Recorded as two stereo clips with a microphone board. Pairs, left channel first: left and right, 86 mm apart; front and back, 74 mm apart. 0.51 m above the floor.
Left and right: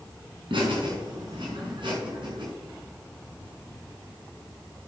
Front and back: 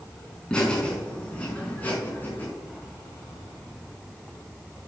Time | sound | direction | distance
0.5 | laughter | 80° right | 5 m